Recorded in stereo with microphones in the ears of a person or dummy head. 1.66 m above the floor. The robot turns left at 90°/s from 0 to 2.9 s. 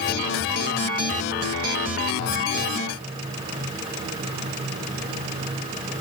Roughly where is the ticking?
No ticking in this recording.